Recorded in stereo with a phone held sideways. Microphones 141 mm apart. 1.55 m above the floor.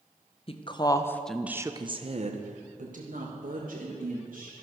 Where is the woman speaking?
45° left (ahead or behind), 1.1 m; by 4.5 s 80° right, 3 m.